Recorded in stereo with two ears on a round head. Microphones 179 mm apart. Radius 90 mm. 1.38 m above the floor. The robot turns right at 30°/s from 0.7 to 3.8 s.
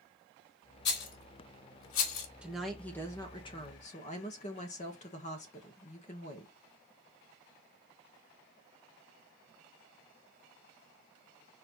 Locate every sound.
0.8 s a rattle: 55° left (ahead or behind), 2.5 m; by 2.3 s 75° left (ahead or behind), 2.5 m
2.4 s a woman speaking: 5° right, 1.9 m; by 6.5 s 35° left, 1.9 m